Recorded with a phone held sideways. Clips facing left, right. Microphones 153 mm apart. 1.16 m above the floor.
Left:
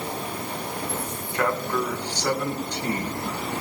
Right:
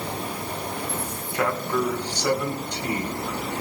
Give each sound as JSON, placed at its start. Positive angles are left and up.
{"t": 1.3, "sound": "a man speaking", "side_deg": -10, "distance_m": 4.5}